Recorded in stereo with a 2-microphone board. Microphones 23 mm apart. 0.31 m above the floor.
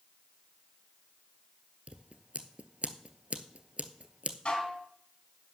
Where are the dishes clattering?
50° left (ahead or behind), 1.9 m.